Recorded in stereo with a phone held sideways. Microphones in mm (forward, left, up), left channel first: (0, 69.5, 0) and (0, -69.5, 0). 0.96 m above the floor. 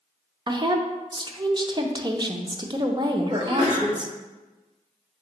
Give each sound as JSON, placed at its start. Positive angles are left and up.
{"t": 0.5, "sound": "a woman speaking", "side_deg": -30, "distance_m": 0.5}
{"t": 3.3, "sound": "a sneeze", "side_deg": -45, "distance_m": 1.5}